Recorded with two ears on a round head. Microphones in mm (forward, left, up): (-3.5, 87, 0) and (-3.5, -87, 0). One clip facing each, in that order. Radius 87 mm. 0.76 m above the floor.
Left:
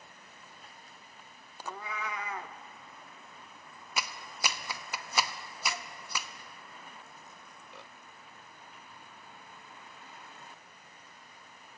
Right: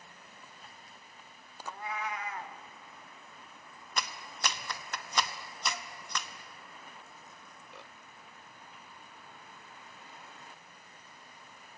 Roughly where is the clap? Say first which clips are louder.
Even; centre.